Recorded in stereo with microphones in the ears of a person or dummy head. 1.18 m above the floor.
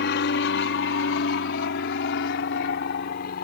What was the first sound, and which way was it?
An aircraft, 60° left (ahead or behind).